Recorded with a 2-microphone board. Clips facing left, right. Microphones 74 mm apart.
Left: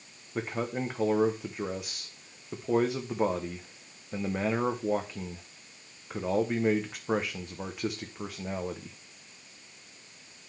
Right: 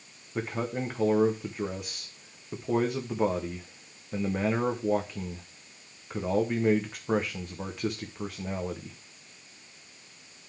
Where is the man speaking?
5° left (ahead or behind), 0.7 m.